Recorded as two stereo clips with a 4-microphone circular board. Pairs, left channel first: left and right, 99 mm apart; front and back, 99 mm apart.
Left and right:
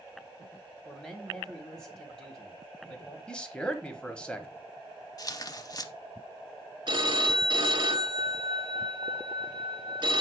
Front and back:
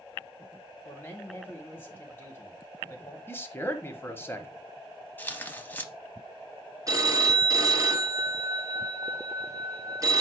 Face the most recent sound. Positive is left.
turn(degrees=-125)